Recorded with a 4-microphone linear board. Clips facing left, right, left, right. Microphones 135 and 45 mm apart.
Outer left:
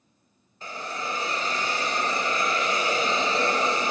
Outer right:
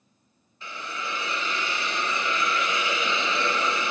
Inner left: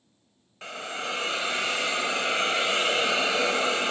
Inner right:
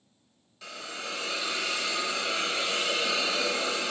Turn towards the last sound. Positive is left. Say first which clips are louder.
# outer left 2 dB, inner left 5 dB
turn(degrees=40)  # may be behind; listen again after turning